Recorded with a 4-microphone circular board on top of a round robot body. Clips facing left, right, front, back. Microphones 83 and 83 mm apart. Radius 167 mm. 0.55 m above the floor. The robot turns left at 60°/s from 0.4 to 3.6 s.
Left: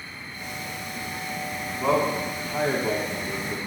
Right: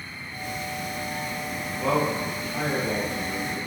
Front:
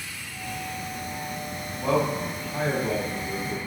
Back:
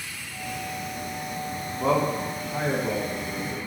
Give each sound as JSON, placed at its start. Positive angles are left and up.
{"t": 1.7, "sound": "a man speaking", "azimuth_deg": 175, "distance_m": 1.3}